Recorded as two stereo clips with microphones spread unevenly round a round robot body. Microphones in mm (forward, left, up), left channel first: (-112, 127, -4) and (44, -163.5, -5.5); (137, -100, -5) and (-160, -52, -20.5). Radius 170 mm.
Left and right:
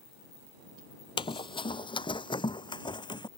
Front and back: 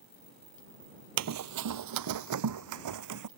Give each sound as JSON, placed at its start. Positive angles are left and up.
{"t": 1.2, "sound": "running footsteps", "azimuth_deg": -170}